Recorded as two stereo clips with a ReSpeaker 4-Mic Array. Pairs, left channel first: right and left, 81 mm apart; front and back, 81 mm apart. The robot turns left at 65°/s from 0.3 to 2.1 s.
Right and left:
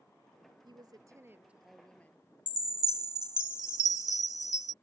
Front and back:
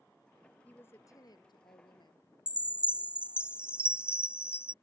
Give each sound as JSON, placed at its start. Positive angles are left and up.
{"t": 0.7, "sound": "a woman speaking", "azimuth_deg": 70}
{"t": 2.5, "sound": "a chime", "azimuth_deg": 105}